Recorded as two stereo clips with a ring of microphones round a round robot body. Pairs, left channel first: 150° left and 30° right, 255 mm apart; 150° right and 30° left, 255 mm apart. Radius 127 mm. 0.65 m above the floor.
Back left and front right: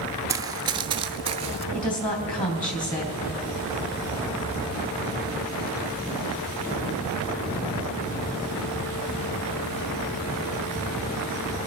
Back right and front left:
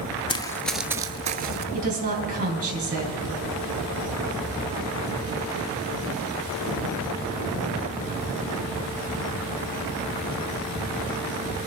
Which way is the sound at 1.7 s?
90° left.